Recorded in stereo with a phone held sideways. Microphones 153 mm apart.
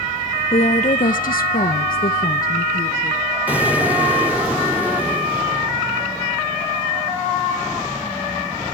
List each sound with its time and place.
0.5 s a woman speaking: 45° left (ahead or behind), 0.8 m; by 3.2 s 60° left (ahead or behind), 1.6 m
3.5 s an explosion: 10° right (ahead or behind), 2.5 m